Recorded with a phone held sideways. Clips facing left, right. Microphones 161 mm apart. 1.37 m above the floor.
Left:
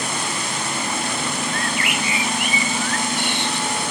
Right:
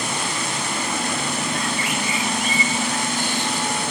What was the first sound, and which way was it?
A bird, 75° left (ahead or behind).